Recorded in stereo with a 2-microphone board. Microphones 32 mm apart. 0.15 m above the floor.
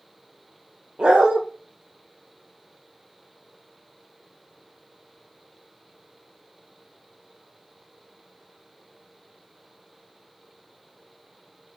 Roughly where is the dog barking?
Right.